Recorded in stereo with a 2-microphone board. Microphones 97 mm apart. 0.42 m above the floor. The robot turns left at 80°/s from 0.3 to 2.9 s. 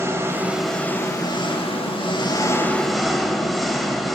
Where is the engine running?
155° right, 1.0 m; by 4.2 s straight ahead, 1.0 m.